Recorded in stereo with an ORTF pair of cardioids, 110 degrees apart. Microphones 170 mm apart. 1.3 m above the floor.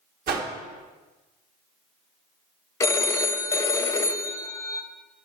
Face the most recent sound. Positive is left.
turn(degrees=20)